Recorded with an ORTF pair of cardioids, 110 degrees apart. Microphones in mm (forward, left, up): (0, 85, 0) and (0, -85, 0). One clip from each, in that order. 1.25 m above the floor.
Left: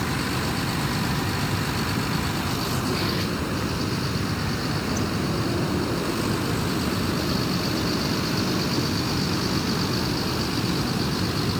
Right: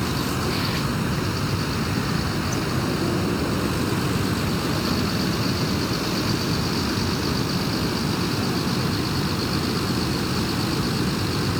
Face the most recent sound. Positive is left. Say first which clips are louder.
# right 1 dB
turn(degrees=-10)